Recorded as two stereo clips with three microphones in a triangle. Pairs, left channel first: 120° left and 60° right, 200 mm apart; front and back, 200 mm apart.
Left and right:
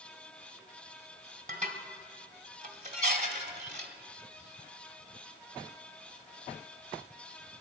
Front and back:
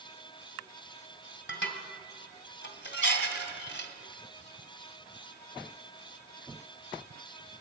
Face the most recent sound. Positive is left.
turn(degrees=-10)